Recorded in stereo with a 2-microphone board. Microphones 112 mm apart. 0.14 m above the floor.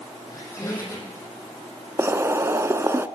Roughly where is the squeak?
Left.